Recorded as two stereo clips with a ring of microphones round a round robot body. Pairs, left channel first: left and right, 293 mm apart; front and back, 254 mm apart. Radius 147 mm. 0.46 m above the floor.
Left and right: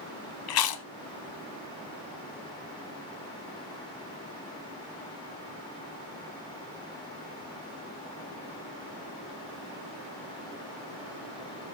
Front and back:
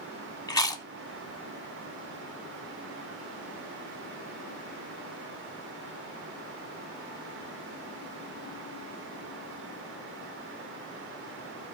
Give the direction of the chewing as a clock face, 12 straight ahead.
9 o'clock.